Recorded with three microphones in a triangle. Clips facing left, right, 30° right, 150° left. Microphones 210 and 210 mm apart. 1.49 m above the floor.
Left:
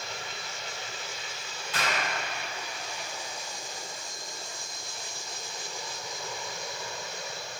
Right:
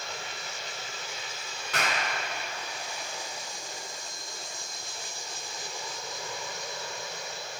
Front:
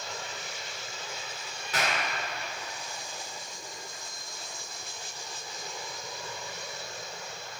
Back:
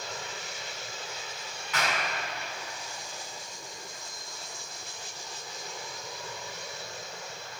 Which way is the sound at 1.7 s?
85° right.